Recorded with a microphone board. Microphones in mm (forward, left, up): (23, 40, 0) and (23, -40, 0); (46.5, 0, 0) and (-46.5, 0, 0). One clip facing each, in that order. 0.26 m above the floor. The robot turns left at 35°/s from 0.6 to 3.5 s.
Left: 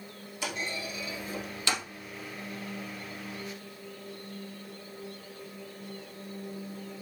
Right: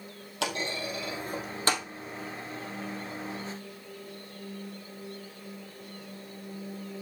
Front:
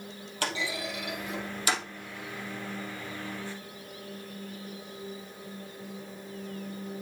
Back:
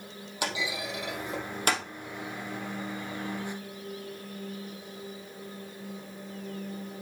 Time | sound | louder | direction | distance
0.4 | a clunk | right 3 dB, even | 105° right | 3 m